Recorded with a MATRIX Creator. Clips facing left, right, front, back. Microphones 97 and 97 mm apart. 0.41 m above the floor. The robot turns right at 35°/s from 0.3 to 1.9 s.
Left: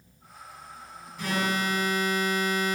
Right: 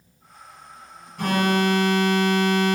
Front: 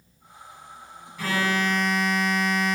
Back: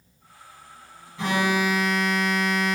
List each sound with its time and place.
1.2 s an alarm: 120° right, 2.5 m; by 2.8 s 95° right, 2.5 m